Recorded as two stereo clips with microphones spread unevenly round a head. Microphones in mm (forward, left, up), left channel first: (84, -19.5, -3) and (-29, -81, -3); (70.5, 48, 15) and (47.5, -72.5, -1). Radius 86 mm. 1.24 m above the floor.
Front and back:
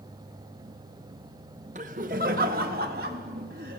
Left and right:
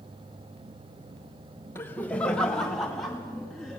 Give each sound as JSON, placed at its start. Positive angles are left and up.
{"t": 1.8, "sound": "laughter", "azimuth_deg": 160, "distance_m": 0.9}